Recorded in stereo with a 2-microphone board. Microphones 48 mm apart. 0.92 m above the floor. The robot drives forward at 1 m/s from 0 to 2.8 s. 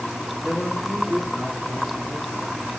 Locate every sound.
0.4 s a man speaking: 10° right (ahead or behind), 1.9 m; by 2.7 s 5° right (ahead or behind), 4 m